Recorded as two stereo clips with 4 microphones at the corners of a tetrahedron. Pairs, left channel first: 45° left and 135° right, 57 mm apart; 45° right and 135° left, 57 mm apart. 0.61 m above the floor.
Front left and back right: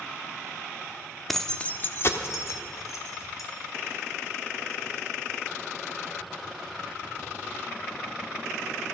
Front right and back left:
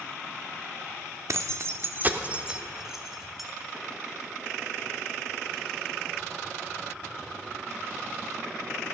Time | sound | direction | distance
1.3 | keys jangling | 130° left | 0.8 m